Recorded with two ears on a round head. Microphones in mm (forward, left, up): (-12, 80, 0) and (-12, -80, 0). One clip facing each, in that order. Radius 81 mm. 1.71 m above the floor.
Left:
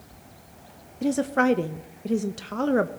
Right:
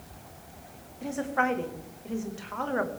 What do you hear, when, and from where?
1.0 s a woman speaking: 50° left (ahead or behind), 0.6 m